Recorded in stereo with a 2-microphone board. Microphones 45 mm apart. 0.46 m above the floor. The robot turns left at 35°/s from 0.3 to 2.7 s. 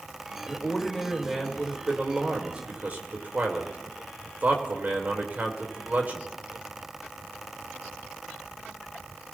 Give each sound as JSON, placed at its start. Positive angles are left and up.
{"t": 0.5, "sound": "a man speaking", "azimuth_deg": 20, "distance_m": 1.9}